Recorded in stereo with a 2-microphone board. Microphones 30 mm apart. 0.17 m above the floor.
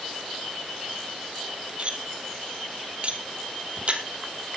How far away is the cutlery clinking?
About 2.5 m.